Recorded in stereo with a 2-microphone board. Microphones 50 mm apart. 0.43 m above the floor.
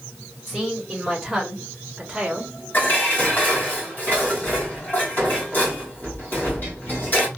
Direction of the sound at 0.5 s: Centre (ahead or behind).